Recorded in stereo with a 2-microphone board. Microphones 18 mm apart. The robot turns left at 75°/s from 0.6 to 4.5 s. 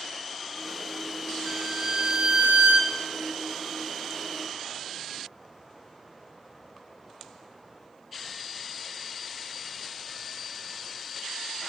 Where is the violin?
5° right, 0.9 m; by 2.9 s 115° right, 0.9 m.